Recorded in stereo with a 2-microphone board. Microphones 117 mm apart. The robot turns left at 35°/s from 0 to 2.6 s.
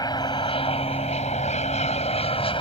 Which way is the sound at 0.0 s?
145° left.